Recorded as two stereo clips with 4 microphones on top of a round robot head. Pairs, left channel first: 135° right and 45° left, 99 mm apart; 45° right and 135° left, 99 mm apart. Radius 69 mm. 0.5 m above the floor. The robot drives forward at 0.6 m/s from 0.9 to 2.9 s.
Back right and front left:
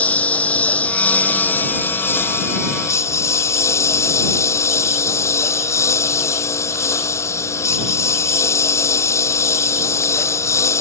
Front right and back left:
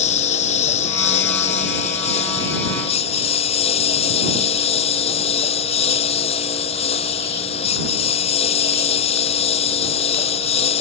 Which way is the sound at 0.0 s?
60° right.